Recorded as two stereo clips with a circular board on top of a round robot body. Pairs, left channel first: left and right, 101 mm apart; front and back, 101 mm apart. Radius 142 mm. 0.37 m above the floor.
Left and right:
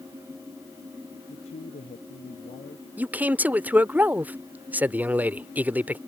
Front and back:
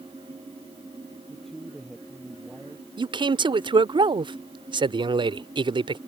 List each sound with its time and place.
1.3 s a man speaking: 85° left
3.0 s a man speaking: 160° right